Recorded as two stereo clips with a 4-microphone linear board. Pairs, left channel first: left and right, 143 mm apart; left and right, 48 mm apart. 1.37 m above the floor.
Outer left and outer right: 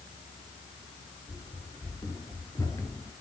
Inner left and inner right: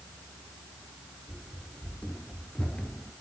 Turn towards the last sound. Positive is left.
turn(degrees=20)  # may be behind; listen again after turning